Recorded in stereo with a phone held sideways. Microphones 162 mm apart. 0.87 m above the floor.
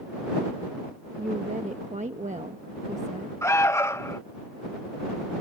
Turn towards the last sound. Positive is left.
turn(degrees=15)  # may be behind; listen again after turning